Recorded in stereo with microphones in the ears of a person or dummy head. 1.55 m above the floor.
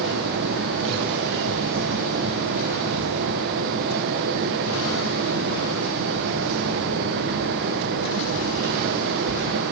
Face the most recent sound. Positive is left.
turn(degrees=-50)  # may be behind; listen again after turning